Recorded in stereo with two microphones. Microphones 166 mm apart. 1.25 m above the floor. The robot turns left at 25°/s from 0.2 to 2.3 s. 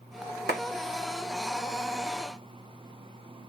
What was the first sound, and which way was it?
A clap, 80° right.